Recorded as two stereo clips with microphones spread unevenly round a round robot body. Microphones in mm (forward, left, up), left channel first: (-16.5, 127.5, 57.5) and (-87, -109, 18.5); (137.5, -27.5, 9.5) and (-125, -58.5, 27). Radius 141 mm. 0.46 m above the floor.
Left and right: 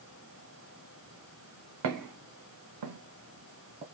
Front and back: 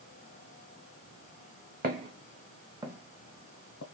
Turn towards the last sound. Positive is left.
turn(degrees=-30)